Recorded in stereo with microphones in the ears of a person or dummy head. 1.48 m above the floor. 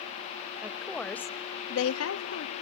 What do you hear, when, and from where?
0.6 s a woman speaking: 10° right (ahead or behind), 1.5 m; by 2.5 s 65° left (ahead or behind), 1.2 m